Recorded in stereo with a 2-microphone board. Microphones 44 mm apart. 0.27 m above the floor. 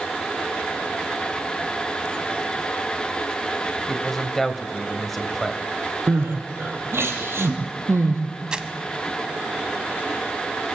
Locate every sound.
3.9 s a man speaking: 5° left (ahead or behind), 1.5 m
6.1 s crying: 65° right (ahead or behind), 3 m
8.5 s crumpling: 20° right (ahead or behind), 1.2 m